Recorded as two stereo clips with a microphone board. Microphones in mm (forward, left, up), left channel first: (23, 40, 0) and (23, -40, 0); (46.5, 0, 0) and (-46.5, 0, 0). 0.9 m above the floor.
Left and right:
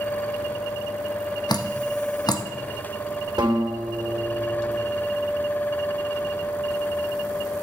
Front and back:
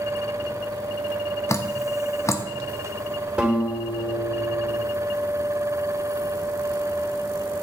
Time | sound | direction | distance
1.5 | dripping | 60° left | 0.8 m
3.4 | a guitar | 105° right | 2.5 m